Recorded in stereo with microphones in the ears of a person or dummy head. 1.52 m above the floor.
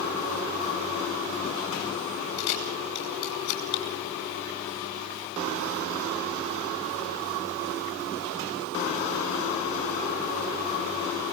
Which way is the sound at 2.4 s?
60° left (ahead or behind).